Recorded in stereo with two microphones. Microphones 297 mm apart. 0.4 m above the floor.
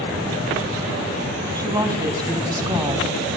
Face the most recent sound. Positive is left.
turn(degrees=-10)  # may be behind; listen again after turning